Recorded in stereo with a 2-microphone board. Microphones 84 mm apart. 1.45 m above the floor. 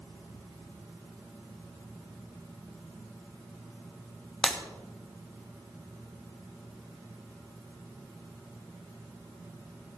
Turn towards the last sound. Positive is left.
turn(degrees=10)  # may be behind; listen again after turning